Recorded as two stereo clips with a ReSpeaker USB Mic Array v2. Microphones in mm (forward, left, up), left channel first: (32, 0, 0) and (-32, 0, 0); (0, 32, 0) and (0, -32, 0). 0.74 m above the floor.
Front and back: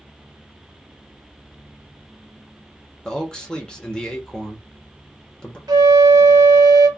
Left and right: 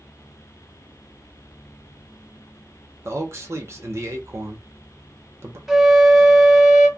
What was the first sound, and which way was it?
A man speaking, 75° right.